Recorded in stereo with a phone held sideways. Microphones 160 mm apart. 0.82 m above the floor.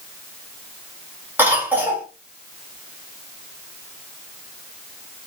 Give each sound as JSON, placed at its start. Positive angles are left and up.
{"t": 1.4, "sound": "a cough", "side_deg": -10, "distance_m": 1.4}